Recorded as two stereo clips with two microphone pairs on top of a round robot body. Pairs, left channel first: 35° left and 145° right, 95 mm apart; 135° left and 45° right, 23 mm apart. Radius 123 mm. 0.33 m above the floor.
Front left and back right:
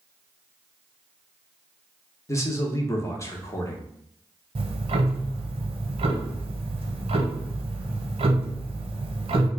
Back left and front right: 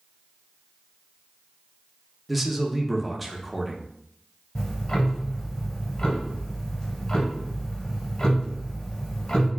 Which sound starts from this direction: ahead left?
A man speaking, at 2.3 s.